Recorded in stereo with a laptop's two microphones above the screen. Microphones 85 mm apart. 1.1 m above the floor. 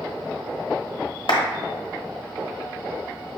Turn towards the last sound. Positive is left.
turn(degrees=70)  # may be behind; listen again after turning